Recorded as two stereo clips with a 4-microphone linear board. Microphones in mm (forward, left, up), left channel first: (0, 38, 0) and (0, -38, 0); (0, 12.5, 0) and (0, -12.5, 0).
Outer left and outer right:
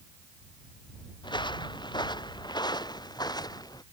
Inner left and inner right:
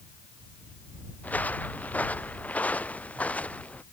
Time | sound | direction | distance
1.2 | footsteps | 80° left | ?